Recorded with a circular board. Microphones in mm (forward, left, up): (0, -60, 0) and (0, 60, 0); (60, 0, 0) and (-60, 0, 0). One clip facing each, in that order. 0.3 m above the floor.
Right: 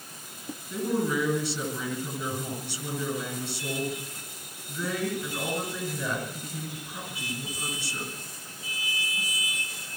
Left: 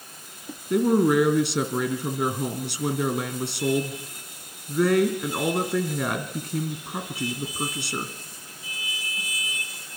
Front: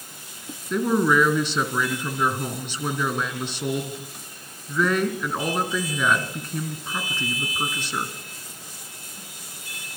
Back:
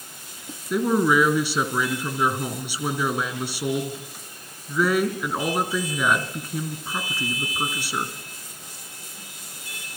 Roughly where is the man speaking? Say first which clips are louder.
Left 8 dB, even; left.